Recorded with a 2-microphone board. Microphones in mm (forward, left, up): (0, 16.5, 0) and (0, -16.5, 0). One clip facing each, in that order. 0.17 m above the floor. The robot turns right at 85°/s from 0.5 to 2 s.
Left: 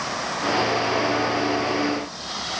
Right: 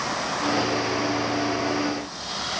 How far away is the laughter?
I don't hear laughter.